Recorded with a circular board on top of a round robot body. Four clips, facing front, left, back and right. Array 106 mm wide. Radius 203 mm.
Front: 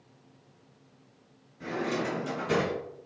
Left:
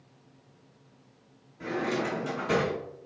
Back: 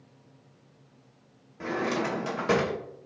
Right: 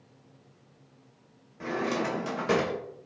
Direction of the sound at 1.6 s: 155° right.